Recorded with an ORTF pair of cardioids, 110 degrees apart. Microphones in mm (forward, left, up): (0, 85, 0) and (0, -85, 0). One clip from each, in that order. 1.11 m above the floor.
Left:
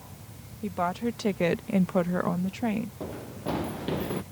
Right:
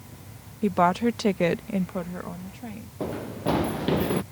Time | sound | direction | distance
0.6 | a woman speaking | 45° right | ?
3.0 | running footsteps | 35° right | ?